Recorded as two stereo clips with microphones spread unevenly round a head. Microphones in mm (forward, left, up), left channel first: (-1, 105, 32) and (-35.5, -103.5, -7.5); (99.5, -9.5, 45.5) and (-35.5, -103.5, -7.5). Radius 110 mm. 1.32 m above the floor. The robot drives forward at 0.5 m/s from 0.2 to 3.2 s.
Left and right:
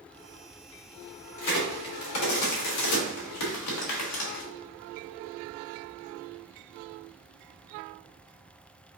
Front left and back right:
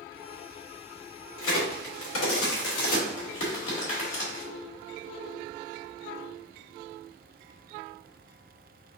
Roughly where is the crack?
Ahead left.